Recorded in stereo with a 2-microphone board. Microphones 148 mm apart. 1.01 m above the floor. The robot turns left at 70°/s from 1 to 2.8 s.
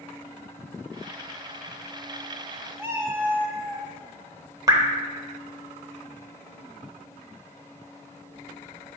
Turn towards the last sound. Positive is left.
turn(degrees=-25)  # may be behind; listen again after turning